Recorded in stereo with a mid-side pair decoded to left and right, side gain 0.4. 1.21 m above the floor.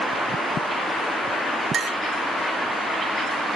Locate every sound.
1.7 s a clink: 60° right, 0.5 m